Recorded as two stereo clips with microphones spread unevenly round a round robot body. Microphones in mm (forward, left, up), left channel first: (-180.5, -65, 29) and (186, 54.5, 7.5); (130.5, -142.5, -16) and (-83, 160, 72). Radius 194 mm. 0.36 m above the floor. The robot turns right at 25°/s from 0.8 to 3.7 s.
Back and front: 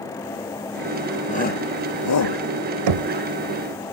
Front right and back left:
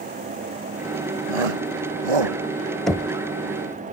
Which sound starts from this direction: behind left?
A shout, at 1.3 s.